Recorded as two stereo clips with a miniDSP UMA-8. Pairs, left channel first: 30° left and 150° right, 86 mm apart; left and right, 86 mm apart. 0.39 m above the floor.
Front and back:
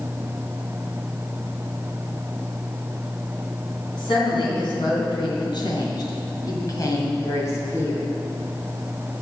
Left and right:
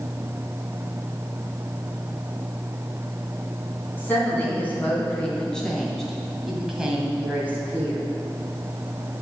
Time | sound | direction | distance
3.9 | a woman speaking | 25° left | 3.5 m